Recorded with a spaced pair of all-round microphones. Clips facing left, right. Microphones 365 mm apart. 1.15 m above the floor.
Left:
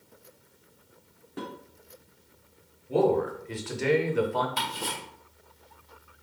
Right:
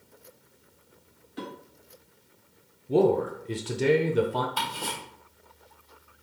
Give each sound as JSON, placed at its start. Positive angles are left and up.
{"t": 1.4, "sound": "dishes clattering", "side_deg": 65, "distance_m": 2.0}
{"t": 2.9, "sound": "a man speaking", "side_deg": -50, "distance_m": 0.6}
{"t": 4.6, "sound": "ticking", "side_deg": 35, "distance_m": 1.7}